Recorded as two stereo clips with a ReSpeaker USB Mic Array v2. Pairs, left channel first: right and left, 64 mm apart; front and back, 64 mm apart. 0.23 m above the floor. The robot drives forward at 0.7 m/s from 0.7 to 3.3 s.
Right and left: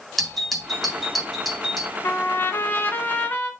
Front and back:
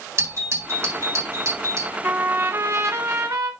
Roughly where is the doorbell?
Behind.